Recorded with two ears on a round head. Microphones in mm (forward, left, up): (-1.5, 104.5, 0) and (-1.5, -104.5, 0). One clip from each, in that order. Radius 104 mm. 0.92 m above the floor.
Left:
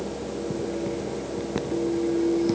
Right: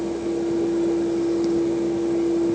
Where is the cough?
No cough in this recording.